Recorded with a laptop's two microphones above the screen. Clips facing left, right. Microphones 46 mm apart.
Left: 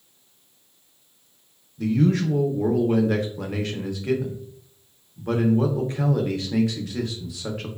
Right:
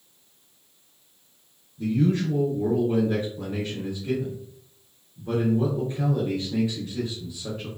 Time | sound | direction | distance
1.8 | a man speaking | 80° left | 0.6 m